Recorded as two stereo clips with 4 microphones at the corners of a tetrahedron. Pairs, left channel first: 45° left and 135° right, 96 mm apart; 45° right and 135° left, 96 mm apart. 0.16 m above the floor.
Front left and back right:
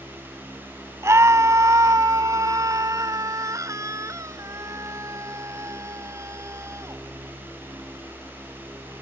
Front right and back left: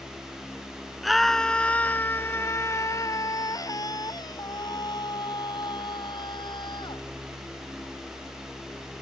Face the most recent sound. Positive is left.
turn(degrees=-75)